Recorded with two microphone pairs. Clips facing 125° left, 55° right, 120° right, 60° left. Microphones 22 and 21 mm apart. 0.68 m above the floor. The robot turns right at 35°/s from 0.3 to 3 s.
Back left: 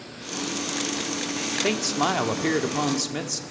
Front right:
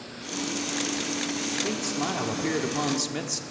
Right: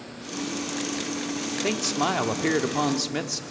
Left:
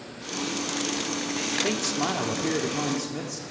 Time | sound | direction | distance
1.6 | a man speaking | 160° left | 1.6 m